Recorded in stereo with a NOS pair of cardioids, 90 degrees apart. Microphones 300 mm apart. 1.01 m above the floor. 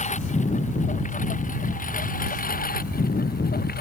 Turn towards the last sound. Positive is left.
turn(degrees=30)